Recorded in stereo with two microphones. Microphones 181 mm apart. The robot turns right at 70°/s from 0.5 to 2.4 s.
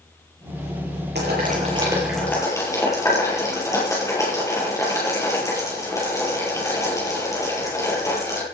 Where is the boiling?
70° right (ahead or behind), 7.5 m; by 8.4 s 15° left (ahead or behind), 7.5 m.